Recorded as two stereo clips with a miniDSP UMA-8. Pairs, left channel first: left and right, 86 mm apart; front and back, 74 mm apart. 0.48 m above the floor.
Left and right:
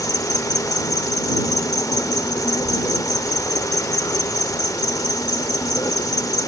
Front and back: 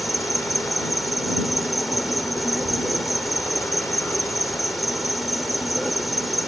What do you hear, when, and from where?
0.0 s an insect: 90° left